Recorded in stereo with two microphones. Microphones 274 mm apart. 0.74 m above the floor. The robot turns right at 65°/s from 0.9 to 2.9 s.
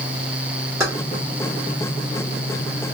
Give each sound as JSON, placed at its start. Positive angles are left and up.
{"t": 0.8, "sound": "keys jangling", "side_deg": -15, "distance_m": 1.5}